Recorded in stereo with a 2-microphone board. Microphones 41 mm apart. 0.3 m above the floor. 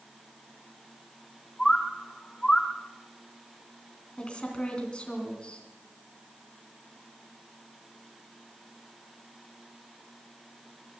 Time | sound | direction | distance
1.6 | a bird | 20° left (ahead or behind) | 0.9 m
4.2 | a woman speaking | 25° left (ahead or behind) | 2.5 m